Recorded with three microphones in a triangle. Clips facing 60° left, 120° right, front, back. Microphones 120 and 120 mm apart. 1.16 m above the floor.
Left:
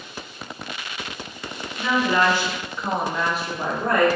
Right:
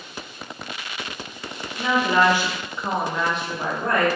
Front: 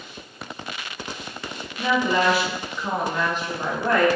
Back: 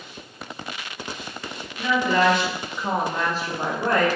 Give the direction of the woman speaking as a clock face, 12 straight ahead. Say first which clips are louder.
Right 1 dB, back 1 dB; 2 o'clock.